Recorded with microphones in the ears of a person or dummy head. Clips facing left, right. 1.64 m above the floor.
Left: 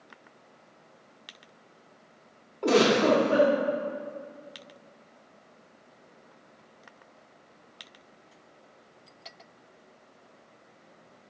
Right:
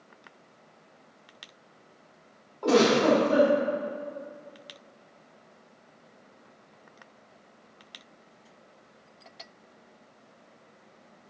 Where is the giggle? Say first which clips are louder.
Right 1 dB; 30° left (ahead or behind), 2 m.